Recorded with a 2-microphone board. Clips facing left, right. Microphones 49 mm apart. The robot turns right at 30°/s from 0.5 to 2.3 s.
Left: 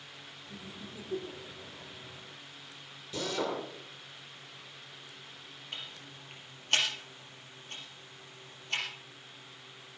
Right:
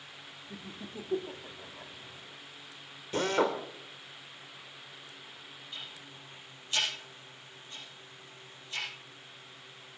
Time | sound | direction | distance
0.5 | laughter | 40° right (ahead or behind) | 1.5 m
3.1 | a drill | 45° right (ahead or behind) | 2 m
5.7 | ticking | 65° left (ahead or behind) | 5.5 m